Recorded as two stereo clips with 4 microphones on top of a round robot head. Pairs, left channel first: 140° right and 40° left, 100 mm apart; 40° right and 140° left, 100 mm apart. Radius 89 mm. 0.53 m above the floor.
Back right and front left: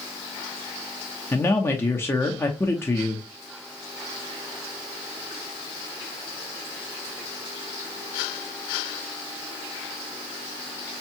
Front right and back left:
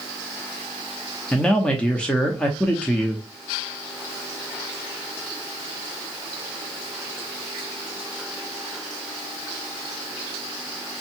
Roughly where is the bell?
I don't hear a bell.